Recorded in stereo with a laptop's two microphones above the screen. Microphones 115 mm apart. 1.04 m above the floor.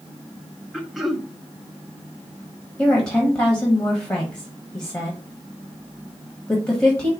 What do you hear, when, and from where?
0.7 s throat clearing: centre (ahead or behind), 0.5 m
2.8 s a woman speaking: 25° left (ahead or behind), 1.3 m